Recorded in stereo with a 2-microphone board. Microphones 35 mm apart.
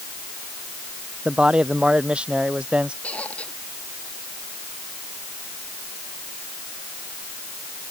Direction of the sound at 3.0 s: 40° left (ahead or behind).